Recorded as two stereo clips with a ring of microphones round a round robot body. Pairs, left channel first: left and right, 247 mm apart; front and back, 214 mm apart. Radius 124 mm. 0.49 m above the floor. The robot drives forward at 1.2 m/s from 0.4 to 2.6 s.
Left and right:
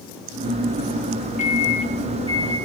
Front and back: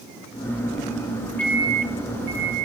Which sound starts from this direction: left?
A microwave, at 1.4 s.